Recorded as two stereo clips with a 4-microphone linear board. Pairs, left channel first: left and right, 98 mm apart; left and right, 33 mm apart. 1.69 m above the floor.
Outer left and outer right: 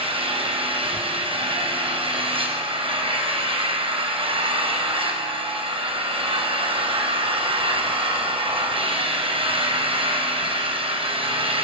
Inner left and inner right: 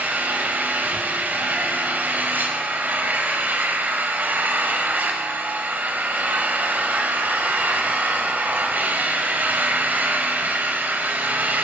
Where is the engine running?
65° right (ahead or behind), 5.5 m.